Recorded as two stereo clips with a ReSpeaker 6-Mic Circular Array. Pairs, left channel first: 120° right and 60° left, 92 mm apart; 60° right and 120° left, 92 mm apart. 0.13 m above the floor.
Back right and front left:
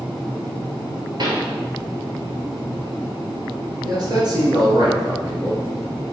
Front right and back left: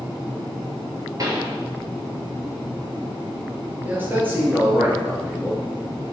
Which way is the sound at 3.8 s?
60° left.